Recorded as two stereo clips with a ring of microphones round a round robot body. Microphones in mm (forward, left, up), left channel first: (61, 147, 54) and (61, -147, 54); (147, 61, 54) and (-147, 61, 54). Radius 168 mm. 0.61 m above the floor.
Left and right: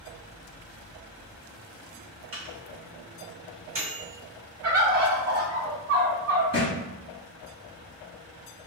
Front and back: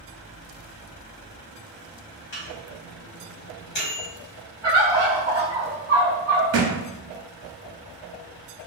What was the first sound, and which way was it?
A microwave, 50° right.